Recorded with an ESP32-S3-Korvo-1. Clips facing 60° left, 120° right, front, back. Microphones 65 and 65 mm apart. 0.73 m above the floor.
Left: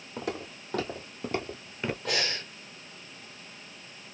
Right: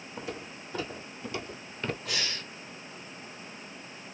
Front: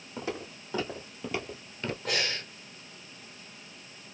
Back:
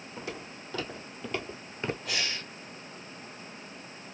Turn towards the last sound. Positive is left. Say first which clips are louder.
# left 4 dB, front 2 dB
turn(degrees=35)